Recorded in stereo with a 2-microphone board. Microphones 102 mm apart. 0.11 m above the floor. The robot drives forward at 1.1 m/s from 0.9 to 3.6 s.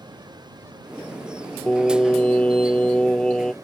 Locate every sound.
0.0 s running water: 45° right (ahead or behind); by 3.6 s 35° right (ahead or behind)
1.7 s singing: 10° left (ahead or behind)